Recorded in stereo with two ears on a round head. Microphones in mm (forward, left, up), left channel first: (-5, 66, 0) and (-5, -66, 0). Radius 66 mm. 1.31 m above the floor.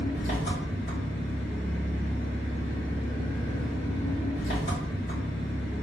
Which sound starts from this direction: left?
An engine running, at 0.0 s.